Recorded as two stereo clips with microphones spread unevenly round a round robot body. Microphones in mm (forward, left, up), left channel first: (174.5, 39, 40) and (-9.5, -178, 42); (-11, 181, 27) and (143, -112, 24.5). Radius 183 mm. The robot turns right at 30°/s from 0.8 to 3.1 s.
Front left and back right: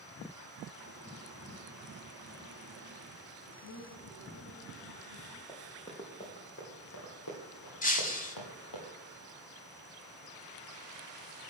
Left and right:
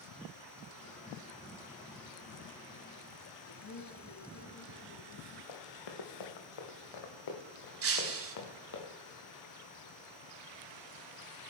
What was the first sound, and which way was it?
A man speaking, 75° left.